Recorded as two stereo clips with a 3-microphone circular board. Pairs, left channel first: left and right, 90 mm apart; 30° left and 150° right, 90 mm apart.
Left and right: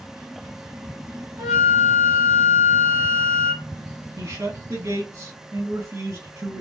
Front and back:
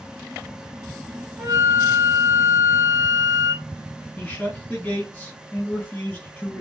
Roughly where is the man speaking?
Ahead right.